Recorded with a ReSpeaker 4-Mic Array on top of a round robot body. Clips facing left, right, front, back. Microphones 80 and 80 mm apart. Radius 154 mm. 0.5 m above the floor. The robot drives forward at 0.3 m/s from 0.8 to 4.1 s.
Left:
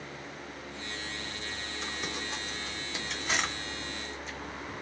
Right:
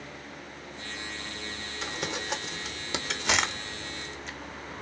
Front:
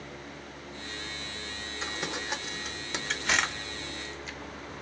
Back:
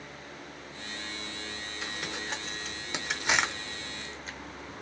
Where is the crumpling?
65° right, 0.7 m; by 4.4 s 125° right, 0.7 m.